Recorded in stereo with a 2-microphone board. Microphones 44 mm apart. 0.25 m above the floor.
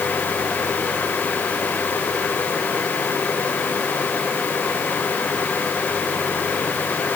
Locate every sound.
Only background noise.